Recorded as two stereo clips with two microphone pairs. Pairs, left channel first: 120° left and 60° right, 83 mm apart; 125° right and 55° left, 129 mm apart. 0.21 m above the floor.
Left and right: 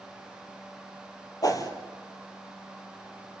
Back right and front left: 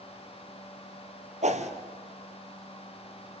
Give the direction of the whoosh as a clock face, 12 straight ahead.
9 o'clock.